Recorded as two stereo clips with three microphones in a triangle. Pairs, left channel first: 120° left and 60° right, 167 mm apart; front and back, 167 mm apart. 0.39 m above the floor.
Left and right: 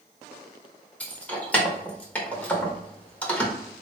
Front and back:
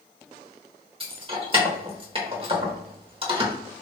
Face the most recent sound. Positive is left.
turn(degrees=-165)